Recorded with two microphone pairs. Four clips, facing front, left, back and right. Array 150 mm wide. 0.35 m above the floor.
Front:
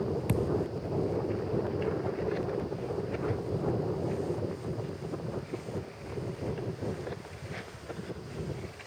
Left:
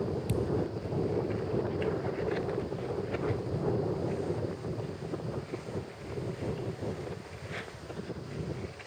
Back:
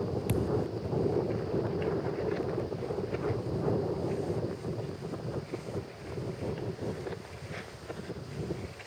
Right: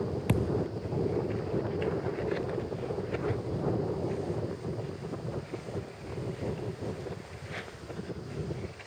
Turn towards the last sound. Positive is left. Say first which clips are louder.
# right 3 dB, even
turn(degrees=-80)